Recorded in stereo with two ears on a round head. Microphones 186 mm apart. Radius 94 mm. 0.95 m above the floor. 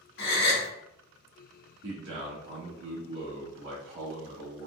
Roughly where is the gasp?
Left.